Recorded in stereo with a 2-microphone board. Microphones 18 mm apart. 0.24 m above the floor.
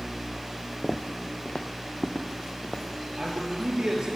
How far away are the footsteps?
About 0.9 m.